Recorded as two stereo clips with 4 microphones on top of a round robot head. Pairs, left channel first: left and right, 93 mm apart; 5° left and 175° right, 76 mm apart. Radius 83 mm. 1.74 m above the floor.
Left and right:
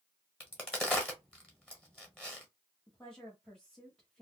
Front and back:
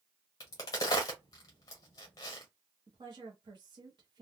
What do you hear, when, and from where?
0.4 s a crack: 10° left, 1.0 m
2.9 s a woman speaking: 175° left, 0.8 m